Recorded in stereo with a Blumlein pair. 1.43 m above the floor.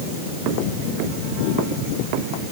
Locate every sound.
Only background noise.